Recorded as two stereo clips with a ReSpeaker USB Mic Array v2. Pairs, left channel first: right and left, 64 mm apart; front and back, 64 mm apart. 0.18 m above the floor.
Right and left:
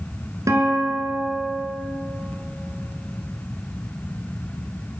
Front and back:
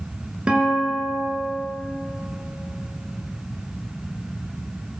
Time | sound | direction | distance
0.5 | a guitar | 110° left | 1.2 m